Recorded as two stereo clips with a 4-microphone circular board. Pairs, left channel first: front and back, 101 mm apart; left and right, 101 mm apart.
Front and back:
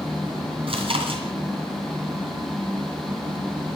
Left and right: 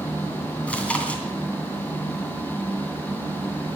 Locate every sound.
0.7 s chewing: 165° left, 2.5 m